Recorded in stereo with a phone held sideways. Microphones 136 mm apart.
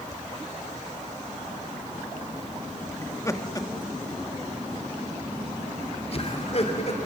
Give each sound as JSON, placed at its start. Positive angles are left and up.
{"t": 3.0, "sound": "laughter", "side_deg": 20, "distance_m": 1.8}